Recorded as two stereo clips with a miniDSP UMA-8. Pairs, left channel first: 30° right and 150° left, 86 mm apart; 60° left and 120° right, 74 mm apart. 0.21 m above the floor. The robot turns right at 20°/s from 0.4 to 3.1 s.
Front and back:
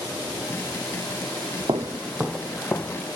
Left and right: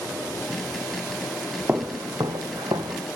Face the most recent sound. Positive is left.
turn(degrees=-100)